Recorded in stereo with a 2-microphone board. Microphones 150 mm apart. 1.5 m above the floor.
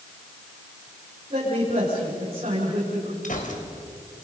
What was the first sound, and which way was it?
A man speaking, 45° right (ahead or behind).